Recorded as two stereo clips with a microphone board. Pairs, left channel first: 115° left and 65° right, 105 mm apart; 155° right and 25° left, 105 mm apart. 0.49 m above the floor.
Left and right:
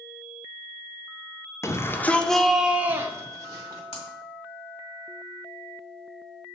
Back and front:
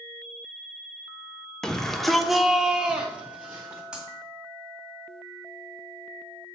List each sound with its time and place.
1.6 s a shout: 125° left, 0.8 m; by 3.8 s 50° right, 1.1 m
3.9 s breaking glass: 105° left, 1.7 m